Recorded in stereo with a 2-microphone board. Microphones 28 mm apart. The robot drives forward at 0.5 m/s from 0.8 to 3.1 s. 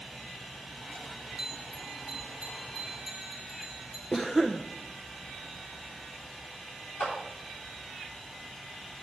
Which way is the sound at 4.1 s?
10° left (ahead or behind).